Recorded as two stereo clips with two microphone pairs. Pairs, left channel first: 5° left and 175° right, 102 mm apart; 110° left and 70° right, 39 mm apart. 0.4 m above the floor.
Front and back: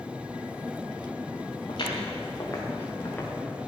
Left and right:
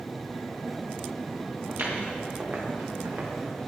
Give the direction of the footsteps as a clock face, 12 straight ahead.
1 o'clock.